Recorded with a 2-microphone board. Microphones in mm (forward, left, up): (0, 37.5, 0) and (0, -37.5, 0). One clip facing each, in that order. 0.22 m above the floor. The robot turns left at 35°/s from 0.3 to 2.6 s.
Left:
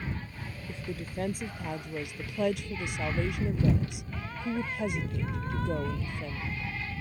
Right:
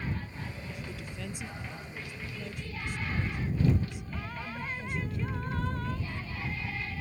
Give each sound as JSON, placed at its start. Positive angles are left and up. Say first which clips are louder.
{"t": 0.7, "sound": "a woman speaking", "louder": "left 4 dB", "azimuth_deg": 150}